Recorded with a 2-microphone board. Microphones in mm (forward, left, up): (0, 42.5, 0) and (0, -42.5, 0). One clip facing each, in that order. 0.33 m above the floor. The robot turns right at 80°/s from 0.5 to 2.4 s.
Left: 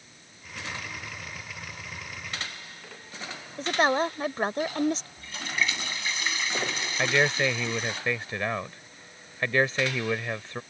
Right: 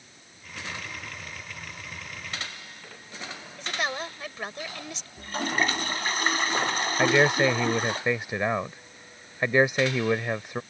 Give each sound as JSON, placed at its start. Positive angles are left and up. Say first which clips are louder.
{"t": 3.6, "sound": "a woman speaking", "louder": "left 8 dB", "side_deg": 40}
{"t": 5.2, "sound": "a toilet flushing", "louder": "right 4 dB", "side_deg": -45}
{"t": 7.0, "sound": "a man speaking", "louder": "right 4 dB", "side_deg": -15}